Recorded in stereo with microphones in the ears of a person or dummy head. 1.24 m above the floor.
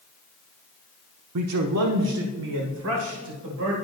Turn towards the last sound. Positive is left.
turn(degrees=-60)  # may be behind; listen again after turning